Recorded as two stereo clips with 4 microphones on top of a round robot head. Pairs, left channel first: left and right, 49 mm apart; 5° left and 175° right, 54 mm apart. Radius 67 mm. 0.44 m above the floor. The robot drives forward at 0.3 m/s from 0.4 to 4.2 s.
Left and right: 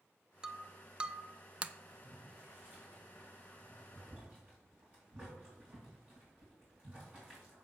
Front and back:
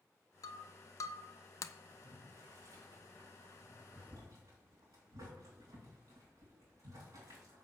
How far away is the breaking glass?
About 0.8 m.